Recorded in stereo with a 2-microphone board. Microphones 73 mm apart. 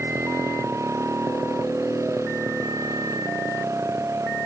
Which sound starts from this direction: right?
A motorcycle, at 0.0 s.